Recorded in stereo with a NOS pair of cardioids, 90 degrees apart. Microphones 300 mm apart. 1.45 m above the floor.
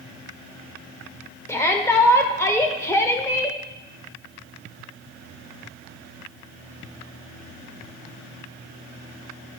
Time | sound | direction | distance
1.5 | a shout | 10° left | 1.5 m